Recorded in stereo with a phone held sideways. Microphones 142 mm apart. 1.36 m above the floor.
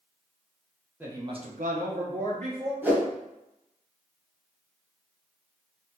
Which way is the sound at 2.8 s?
15° right (ahead or behind).